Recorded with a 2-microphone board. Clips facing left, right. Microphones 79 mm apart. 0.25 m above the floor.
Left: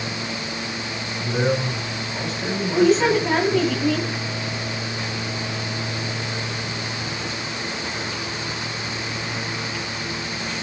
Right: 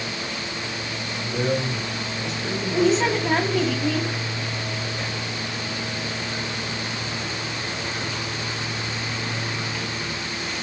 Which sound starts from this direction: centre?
A woman speaking, at 2.7 s.